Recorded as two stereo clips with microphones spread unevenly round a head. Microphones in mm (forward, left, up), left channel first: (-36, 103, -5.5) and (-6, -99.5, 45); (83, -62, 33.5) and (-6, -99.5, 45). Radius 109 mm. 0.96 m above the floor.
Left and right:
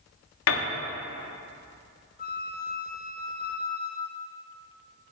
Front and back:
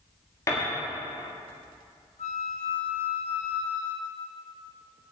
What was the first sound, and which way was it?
A piano, 90° left.